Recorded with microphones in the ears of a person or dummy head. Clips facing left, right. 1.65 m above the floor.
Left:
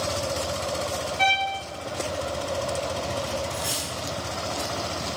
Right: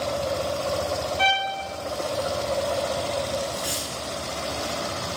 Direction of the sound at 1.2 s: 5° right (ahead or behind).